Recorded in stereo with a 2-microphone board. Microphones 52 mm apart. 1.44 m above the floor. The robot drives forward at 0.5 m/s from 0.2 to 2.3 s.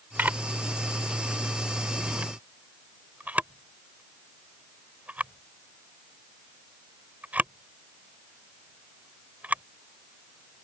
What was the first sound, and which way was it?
A camera shutter, 40° right (ahead or behind).